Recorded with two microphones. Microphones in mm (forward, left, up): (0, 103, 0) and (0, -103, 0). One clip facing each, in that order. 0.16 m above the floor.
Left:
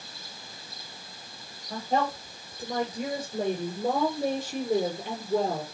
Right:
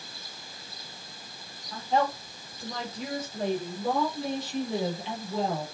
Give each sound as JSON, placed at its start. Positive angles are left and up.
{"t": 1.7, "sound": "a woman speaking", "side_deg": 55, "distance_m": 7.5}